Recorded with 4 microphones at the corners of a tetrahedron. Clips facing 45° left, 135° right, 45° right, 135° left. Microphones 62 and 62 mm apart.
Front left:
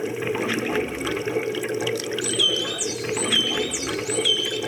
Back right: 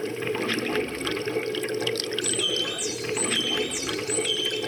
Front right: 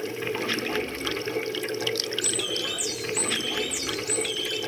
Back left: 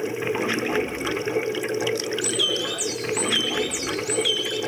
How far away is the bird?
About 6.5 m.